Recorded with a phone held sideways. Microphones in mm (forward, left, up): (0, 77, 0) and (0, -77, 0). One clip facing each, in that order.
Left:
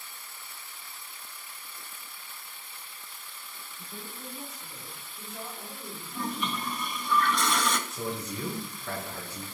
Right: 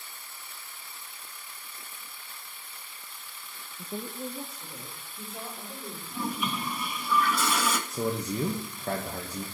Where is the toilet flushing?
5° right (ahead or behind), 0.8 m.